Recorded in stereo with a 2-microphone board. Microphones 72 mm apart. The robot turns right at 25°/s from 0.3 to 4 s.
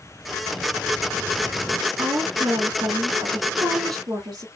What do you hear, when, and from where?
2.0 s a woman speaking: 120° right, 2 m; by 4.5 s 65° right, 2 m